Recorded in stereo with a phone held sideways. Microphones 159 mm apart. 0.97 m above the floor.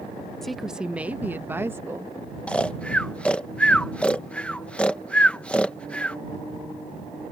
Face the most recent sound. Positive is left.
turn(degrees=5)  # may be behind; listen again after turning